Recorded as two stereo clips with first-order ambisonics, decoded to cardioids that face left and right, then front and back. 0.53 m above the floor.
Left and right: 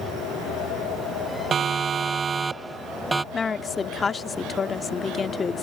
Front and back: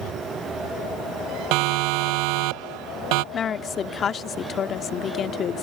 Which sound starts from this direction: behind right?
A siren, at 1.5 s.